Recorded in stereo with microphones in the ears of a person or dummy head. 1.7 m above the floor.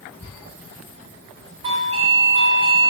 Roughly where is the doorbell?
Right.